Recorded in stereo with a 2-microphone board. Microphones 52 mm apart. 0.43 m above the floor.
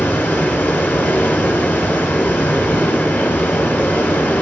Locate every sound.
0.0 s running water: 40° left (ahead or behind), 0.9 m